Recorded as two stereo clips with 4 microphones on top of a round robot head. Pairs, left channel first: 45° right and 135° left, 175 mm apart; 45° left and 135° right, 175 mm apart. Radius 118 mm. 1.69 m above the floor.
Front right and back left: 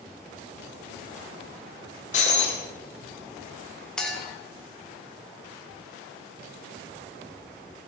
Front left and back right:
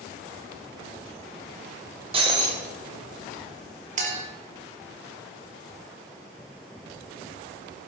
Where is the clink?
130° right, 1.0 m.